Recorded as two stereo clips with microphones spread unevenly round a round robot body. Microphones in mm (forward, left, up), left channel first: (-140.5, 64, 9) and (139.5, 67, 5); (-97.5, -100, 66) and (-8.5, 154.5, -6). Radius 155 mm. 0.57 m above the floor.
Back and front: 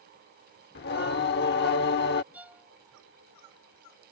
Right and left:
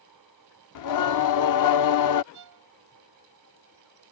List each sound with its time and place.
0.8 s singing: 125° right
2.3 s a violin: 85° left